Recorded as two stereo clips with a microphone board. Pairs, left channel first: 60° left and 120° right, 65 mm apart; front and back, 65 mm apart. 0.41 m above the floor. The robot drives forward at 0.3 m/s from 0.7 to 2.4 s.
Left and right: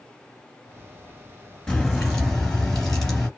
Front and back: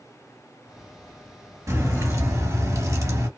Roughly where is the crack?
Behind left.